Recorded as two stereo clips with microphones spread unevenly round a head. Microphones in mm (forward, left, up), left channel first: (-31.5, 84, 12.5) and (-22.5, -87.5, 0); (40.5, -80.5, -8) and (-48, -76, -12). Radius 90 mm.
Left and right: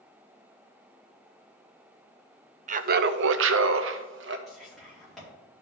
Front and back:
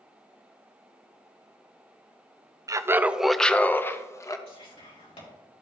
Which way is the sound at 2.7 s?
135° right.